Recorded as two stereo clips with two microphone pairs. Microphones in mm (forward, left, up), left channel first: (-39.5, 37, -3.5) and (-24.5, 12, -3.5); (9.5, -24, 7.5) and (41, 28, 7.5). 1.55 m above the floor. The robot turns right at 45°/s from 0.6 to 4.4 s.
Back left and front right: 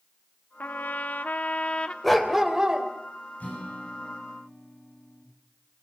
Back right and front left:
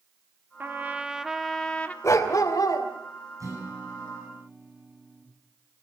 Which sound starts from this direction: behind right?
A dog barking, at 2.0 s.